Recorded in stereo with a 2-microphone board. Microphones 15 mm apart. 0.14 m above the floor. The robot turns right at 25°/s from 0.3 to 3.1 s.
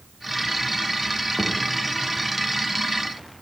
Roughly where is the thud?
Right.